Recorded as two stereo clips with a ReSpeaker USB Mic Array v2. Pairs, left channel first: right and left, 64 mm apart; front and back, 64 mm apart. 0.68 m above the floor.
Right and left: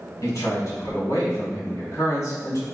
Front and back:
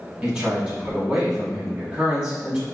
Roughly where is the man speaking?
Right.